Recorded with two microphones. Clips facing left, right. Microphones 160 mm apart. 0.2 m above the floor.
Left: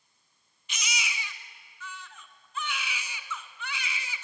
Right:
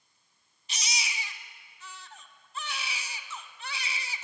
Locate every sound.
0.7 s a baby crying: 35° right (ahead or behind), 0.9 m